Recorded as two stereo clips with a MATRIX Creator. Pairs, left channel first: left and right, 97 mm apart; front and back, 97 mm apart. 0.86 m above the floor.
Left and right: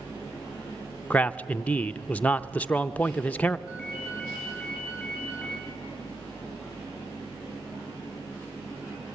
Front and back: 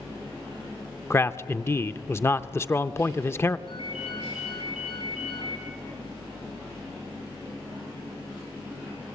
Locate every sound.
1.1 s a man speaking: 30° left, 0.6 m
3.7 s a ringtone: 15° right, 9.5 m